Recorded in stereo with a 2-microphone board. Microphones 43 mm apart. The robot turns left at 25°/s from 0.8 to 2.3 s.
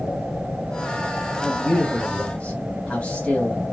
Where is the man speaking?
15° left (ahead or behind), 2 m; by 3.6 s 35° left (ahead or behind), 2 m.